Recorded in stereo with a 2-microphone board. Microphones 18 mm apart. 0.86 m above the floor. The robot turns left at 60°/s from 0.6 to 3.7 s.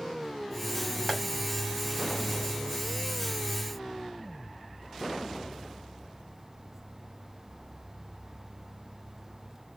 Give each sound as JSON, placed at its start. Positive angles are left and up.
{"t": 1.1, "sound": "tapping", "side_deg": 20, "distance_m": 2.5}